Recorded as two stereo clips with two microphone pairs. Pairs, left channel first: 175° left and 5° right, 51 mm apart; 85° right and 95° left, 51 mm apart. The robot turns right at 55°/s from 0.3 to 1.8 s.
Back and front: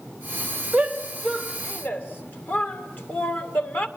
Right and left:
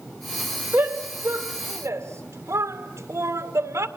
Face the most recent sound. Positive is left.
turn(degrees=120)